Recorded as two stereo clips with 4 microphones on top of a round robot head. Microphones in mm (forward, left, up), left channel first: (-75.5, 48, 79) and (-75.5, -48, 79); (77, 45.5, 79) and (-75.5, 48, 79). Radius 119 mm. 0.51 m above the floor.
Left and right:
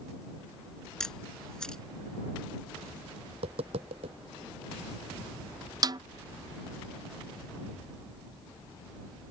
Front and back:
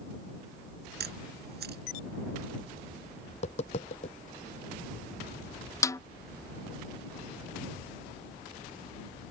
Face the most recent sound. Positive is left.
turn(degrees=-65)